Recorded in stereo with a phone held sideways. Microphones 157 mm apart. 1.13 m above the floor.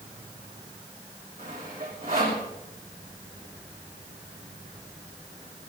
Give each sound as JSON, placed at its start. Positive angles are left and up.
{"t": 1.4, "sound": "sawing", "side_deg": -70, "distance_m": 6.0}